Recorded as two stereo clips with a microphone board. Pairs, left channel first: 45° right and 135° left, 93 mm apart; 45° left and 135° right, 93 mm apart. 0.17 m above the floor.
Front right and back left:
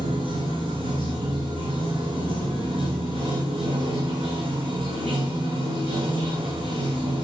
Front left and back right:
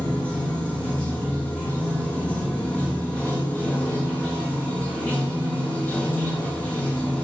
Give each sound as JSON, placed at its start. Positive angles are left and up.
{"t": 0.0, "sound": "running water", "azimuth_deg": 120, "distance_m": 4.5}